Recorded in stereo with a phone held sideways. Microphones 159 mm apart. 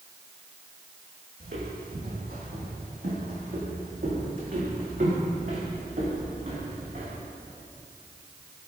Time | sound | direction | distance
1.4 | footsteps | 70° right (ahead or behind) | 3 m